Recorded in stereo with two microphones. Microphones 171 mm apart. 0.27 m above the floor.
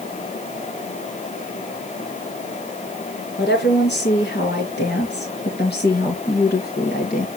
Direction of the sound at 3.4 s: 75° left (ahead or behind).